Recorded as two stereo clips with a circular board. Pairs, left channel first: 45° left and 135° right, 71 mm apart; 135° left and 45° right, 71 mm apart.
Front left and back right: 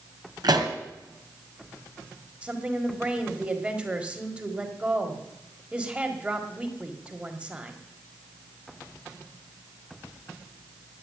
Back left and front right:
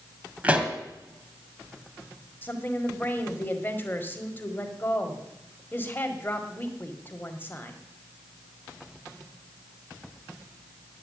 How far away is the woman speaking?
About 1.7 m.